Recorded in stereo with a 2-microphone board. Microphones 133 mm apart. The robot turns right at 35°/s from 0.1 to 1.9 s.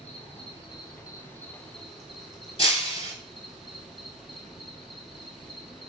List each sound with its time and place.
0.0 s an insect: 120° left, 0.7 m; by 5.9 s straight behind, 0.7 m
2.6 s breaking glass: 45° left (ahead or behind), 0.7 m